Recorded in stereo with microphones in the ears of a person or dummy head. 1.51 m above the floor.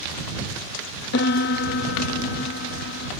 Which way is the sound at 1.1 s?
50° left (ahead or behind).